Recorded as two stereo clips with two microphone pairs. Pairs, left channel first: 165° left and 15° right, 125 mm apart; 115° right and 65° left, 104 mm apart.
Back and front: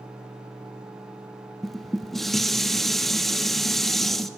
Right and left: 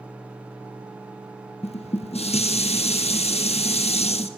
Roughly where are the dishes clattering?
Right.